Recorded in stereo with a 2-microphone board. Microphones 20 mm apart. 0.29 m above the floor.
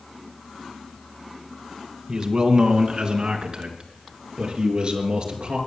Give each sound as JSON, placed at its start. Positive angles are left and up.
{"t": 2.1, "sound": "a man speaking", "side_deg": -40, "distance_m": 2.0}